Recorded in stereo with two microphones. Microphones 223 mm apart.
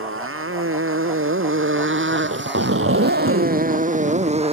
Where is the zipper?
85° right.